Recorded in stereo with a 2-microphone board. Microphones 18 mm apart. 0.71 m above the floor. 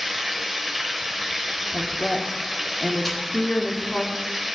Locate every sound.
0.0 s running water: 15° right (ahead or behind), 1.6 m
1.7 s a woman speaking: 55° left (ahead or behind), 1.3 m
3.0 s a snare drum: 5° left (ahead or behind), 3 m